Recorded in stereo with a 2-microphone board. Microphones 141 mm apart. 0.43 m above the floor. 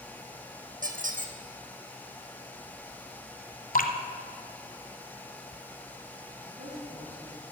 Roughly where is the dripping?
Left.